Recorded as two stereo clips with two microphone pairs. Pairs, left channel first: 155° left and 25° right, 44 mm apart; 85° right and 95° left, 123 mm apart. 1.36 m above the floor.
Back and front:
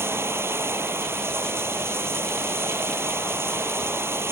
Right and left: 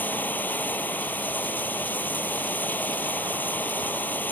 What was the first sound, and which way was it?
Running water, 10° right.